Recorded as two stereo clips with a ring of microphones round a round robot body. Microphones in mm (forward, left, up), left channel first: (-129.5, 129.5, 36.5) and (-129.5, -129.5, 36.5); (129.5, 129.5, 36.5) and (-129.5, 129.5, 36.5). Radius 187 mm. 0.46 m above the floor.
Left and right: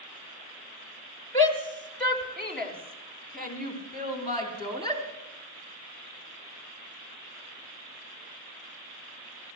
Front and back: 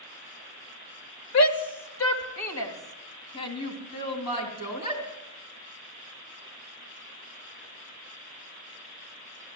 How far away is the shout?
About 1.7 m.